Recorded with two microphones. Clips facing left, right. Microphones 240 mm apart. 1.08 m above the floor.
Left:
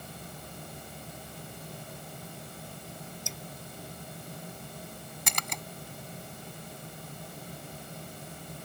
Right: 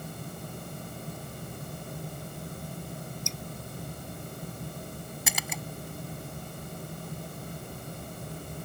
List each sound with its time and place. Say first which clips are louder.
3.3 s dripping: right 4 dB; 5° left (ahead or behind)
5.3 s a splash: even; 5° right (ahead or behind)